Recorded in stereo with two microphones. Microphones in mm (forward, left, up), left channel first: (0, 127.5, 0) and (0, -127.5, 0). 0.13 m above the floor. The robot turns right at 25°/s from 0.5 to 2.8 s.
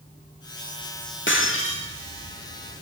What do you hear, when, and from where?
1.3 s breaking glass: 50° left (ahead or behind), 6.5 m; by 1.9 s 65° left (ahead or behind), 6.5 m